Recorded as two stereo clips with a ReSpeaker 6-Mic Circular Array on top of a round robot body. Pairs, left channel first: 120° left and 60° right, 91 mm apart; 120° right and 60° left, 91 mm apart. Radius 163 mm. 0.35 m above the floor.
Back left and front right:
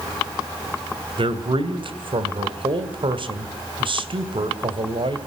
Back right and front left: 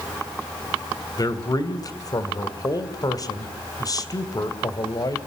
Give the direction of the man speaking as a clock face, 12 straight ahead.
3 o'clock.